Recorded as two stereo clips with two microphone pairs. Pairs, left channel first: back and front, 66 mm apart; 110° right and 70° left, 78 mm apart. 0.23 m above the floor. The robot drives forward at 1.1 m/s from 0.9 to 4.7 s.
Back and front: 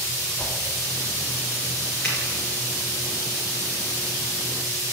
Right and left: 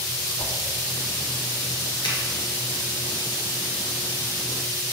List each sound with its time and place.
0.4 s a whoosh: 100° right, 2.5 m
2.0 s a finger snap: 100° right, 4 m